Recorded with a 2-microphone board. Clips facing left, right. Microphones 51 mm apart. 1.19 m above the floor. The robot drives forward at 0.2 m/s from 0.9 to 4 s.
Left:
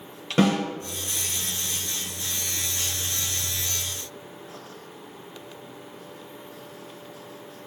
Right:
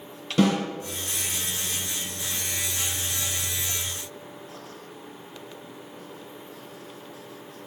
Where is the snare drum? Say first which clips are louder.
Left 1 dB; 40° left (ahead or behind), 1.2 m.